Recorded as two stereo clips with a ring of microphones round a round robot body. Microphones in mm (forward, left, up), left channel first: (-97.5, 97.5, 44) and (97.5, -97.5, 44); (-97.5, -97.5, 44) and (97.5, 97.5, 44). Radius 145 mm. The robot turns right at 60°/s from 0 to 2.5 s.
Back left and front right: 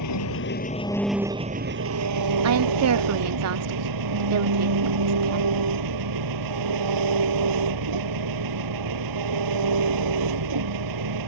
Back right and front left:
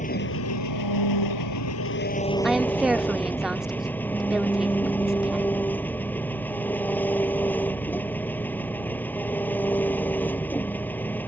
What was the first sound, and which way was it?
An engine running, 160° left.